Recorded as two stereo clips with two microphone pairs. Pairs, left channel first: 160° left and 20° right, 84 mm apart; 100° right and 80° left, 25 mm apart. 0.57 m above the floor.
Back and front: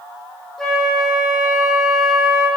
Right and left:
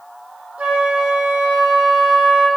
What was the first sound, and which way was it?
A flute, 70° left.